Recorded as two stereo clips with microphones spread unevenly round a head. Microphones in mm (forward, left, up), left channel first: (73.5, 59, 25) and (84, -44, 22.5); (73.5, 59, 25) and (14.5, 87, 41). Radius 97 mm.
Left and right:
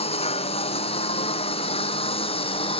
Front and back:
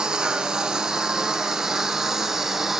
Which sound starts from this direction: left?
A lawn mower, at 0.0 s.